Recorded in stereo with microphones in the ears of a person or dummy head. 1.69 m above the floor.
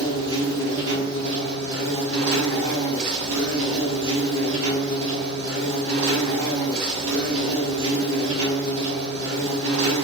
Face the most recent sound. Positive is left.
turn(degrees=-75)  # may be behind; listen again after turning